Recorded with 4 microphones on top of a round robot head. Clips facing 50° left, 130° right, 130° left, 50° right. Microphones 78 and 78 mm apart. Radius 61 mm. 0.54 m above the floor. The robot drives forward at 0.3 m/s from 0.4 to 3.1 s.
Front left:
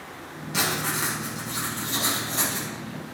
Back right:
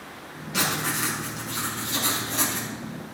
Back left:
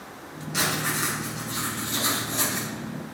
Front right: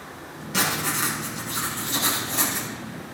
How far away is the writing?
About 5.5 m.